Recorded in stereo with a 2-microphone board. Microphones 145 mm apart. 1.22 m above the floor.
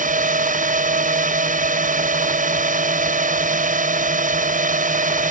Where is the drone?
65° right (ahead or behind).